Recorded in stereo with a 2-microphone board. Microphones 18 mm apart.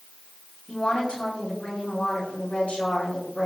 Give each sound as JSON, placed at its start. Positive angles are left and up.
{"t": 0.7, "sound": "a woman speaking", "side_deg": 65, "distance_m": 7.0}